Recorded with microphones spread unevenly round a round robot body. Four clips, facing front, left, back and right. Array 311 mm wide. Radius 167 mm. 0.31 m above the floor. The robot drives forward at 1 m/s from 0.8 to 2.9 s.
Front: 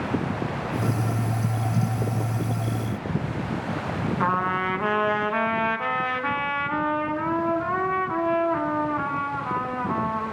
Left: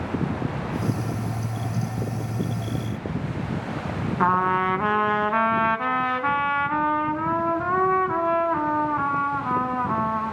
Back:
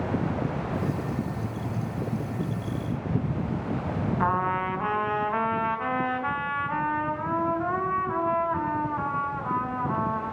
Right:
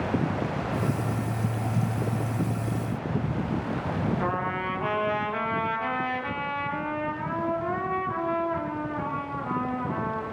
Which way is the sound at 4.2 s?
80° left.